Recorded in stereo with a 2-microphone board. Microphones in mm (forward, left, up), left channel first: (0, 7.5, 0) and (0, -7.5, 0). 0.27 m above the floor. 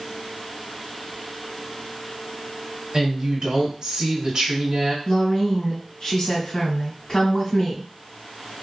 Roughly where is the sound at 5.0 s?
Left.